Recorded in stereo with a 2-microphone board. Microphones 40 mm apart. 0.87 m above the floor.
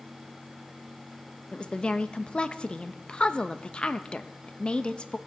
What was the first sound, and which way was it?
A woman speaking, 25° left (ahead or behind).